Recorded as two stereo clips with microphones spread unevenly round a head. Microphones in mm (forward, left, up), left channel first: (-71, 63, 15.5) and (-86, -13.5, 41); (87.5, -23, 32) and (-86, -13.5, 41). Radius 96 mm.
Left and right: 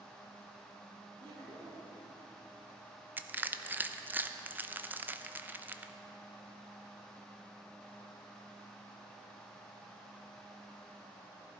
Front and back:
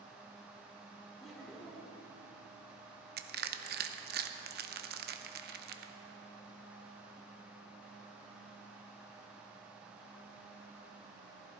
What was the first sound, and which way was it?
Laughter, 90° right.